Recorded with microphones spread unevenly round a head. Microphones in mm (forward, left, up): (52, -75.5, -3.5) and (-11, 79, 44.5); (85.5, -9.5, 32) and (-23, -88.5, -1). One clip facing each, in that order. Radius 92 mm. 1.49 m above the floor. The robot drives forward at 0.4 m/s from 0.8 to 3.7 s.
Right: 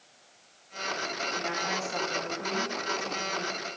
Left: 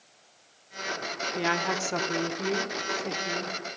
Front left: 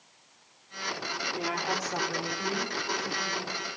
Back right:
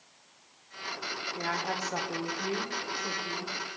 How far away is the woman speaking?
About 0.7 m.